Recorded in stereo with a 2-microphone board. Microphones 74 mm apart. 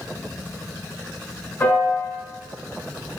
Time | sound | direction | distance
1.6 | a piano | 25° left (ahead or behind) | 1.4 m